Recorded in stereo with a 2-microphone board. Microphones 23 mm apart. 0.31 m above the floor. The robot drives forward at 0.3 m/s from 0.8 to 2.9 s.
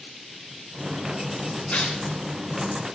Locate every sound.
1.7 s tearing paper: 65° left (ahead or behind), 3.5 m